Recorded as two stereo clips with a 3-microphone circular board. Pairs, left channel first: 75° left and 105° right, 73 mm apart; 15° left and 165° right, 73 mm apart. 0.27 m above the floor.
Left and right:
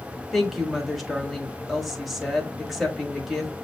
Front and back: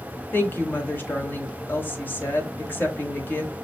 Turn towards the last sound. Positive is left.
turn(degrees=-20)